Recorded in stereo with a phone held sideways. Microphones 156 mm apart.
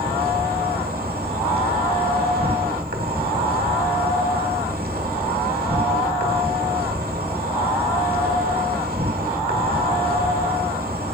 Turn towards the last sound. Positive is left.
turn(degrees=-90)